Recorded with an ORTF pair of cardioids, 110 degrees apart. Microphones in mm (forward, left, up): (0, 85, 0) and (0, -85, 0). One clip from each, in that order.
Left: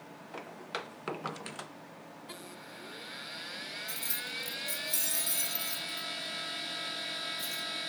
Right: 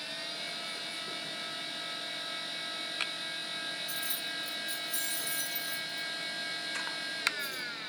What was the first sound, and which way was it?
Keys jangling, straight ahead.